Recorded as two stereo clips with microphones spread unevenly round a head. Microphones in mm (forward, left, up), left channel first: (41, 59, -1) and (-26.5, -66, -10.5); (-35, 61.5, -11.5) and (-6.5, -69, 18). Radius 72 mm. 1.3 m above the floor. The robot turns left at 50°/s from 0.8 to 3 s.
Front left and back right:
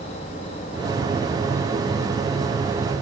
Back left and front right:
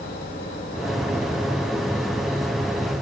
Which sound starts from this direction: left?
An insect, at 0.0 s.